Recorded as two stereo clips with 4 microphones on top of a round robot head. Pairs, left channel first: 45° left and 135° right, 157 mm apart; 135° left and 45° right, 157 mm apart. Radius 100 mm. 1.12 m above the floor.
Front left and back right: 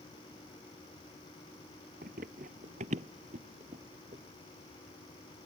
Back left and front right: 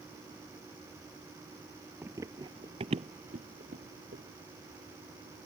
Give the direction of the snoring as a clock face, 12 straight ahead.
No snoring in this recording.